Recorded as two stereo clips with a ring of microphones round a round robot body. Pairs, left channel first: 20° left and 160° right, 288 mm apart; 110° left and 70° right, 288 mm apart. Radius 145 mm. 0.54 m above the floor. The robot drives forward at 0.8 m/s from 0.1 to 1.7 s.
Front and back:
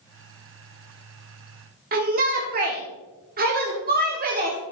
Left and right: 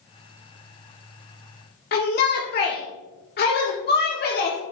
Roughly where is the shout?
Behind left.